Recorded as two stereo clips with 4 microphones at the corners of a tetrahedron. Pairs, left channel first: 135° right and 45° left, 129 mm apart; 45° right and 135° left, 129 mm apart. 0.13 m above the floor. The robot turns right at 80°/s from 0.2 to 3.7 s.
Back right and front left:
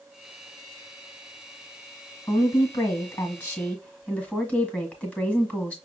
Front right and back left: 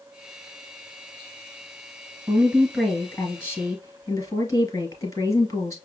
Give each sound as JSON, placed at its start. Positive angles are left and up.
{"t": 2.3, "sound": "a woman speaking", "azimuth_deg": 180, "distance_m": 1.6}